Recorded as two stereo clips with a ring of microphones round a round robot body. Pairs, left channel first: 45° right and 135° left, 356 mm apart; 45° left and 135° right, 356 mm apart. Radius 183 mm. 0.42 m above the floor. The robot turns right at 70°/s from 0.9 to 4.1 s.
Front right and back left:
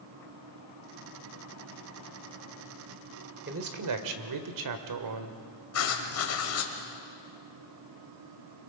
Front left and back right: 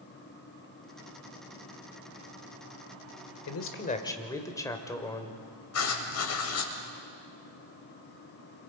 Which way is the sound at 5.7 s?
Straight ahead.